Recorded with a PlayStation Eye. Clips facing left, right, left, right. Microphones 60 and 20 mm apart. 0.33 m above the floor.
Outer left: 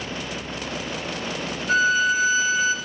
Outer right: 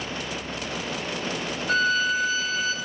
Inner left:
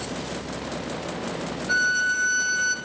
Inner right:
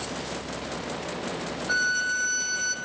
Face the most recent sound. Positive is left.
turn(degrees=5)  # may be behind; listen again after turning